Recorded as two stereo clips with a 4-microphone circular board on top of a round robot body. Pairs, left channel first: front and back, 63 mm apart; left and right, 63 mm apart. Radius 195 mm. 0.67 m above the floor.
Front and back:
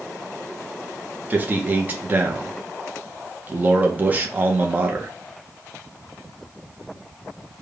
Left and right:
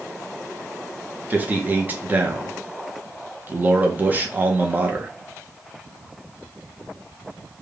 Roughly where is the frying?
I don't hear frying.